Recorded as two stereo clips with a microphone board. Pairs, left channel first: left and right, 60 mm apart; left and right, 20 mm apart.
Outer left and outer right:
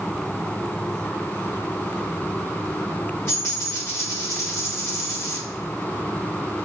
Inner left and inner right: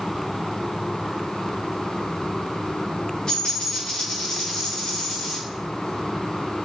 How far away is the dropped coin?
About 1.9 m.